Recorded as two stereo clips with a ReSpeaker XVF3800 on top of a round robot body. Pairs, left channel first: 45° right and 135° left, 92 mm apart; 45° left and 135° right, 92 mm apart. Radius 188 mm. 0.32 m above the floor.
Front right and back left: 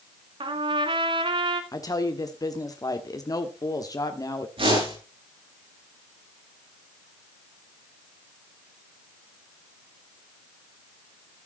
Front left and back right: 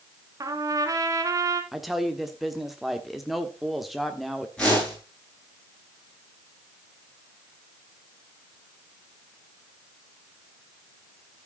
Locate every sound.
0.4 s a trumpet: 170° left, 1.0 m
1.7 s a woman speaking: 45° right, 1.5 m
4.6 s a whoosh: 125° left, 9 m